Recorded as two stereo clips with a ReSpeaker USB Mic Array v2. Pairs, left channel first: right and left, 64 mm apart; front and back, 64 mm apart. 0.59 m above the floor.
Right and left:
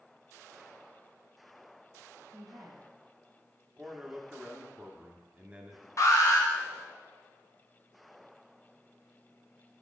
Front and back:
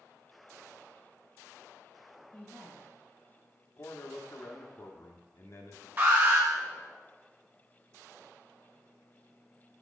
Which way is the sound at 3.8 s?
25° left.